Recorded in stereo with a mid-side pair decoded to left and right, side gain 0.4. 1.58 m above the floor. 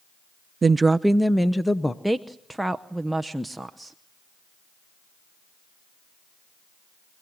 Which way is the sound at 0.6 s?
35° right.